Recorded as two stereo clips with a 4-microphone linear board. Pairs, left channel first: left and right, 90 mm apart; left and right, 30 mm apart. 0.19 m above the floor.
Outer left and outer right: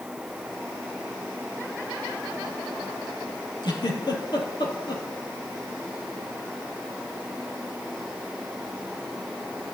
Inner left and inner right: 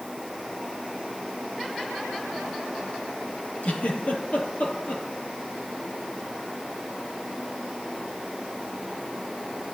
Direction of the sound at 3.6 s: 50° left (ahead or behind).